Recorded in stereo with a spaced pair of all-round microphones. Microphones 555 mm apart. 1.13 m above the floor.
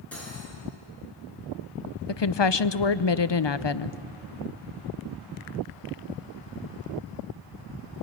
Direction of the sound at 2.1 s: 50° left (ahead or behind).